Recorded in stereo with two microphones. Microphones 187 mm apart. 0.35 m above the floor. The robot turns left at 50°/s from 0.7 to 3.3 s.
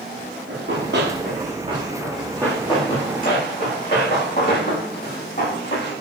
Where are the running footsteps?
80° right, 9.5 m; by 6.0 s 55° left (ahead or behind), 12 m.